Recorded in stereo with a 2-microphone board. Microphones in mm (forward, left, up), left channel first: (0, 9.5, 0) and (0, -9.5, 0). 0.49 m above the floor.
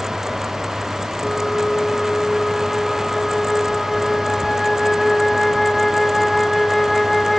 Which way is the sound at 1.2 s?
15° left (ahead or behind).